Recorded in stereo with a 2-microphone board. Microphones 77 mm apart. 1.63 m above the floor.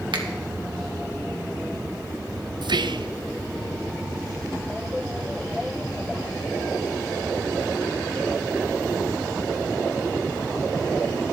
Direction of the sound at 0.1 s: 85° right.